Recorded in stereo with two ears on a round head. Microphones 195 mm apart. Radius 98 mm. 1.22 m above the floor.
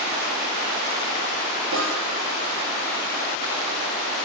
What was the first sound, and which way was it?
A snare drum, 65° right (ahead or behind).